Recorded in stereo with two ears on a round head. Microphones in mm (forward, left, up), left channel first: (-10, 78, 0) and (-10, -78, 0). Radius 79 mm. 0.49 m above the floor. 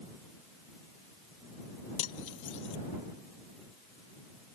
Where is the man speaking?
I don't hear a man speaking.